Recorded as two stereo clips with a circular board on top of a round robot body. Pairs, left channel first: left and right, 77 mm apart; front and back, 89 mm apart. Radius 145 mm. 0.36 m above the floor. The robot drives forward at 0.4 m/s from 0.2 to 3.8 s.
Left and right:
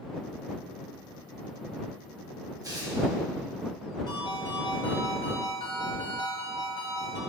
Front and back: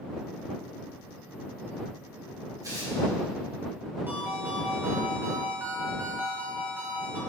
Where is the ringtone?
110° left, 2.5 m.